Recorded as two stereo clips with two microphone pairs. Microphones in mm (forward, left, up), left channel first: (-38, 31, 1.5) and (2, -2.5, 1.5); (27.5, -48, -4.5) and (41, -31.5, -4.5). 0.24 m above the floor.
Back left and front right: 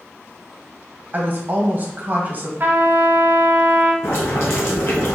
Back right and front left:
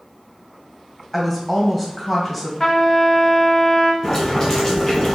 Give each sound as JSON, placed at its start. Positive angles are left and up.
{"t": 1.1, "sound": "a woman speaking", "azimuth_deg": -30, "distance_m": 1.6}
{"t": 2.6, "sound": "a trumpet", "azimuth_deg": -70, "distance_m": 0.9}
{"t": 4.0, "sound": "boiling", "azimuth_deg": 160, "distance_m": 2.0}